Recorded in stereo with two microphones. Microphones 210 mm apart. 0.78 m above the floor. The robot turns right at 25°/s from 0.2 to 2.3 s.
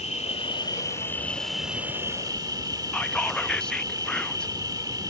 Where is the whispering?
5° left (ahead or behind).